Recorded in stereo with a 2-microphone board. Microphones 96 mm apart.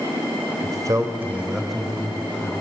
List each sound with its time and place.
0.6 s a man speaking: 50° right (ahead or behind), 1.9 m; by 2.5 s 20° left (ahead or behind), 3 m